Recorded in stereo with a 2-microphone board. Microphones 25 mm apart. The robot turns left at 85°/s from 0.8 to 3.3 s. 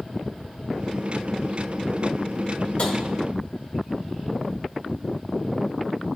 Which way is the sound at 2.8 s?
50° left (ahead or behind).